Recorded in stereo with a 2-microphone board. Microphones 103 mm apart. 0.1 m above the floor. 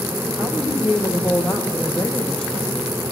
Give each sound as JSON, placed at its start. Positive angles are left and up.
{"t": 0.4, "sound": "a woman speaking", "side_deg": 10, "distance_m": 5.0}